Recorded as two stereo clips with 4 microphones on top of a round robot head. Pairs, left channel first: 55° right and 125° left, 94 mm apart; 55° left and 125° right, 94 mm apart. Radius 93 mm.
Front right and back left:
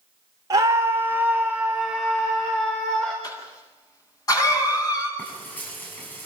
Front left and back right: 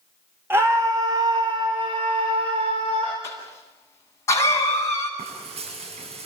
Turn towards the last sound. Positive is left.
turn(degrees=-130)